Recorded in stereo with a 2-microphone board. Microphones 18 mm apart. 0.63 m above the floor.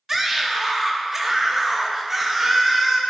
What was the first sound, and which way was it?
A scream, 20° right (ahead or behind).